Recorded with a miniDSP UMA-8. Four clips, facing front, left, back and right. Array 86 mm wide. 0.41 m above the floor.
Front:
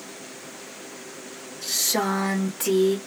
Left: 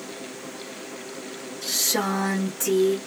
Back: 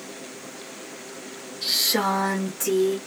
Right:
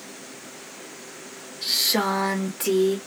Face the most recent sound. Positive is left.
turn(degrees=-40)